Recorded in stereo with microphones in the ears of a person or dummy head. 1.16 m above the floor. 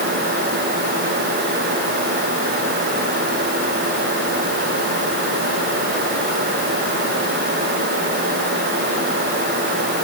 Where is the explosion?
I don't hear an explosion.